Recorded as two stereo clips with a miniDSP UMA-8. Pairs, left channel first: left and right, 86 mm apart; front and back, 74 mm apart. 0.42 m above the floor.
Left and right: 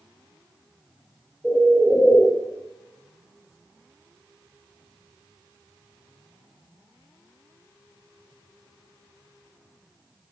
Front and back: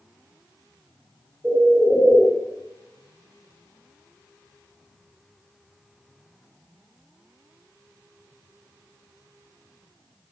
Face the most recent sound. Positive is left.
turn(degrees=-160)